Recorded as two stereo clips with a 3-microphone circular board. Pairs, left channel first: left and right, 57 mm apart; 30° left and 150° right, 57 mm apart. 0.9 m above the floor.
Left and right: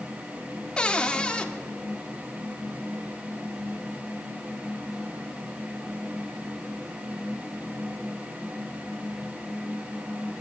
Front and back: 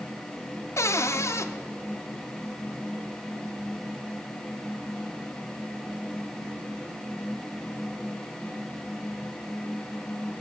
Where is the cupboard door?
20° left, 0.6 m.